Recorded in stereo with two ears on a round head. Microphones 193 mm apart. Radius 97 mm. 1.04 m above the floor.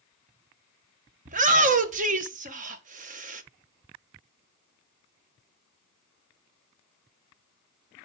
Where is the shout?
40° right (ahead or behind), 0.9 m.